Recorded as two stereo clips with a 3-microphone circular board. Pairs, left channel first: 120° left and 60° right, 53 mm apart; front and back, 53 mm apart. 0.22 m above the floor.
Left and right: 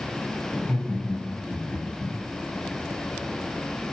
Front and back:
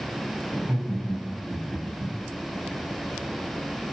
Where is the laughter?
150° left, 1.6 m; by 2.1 s 95° right, 1.8 m.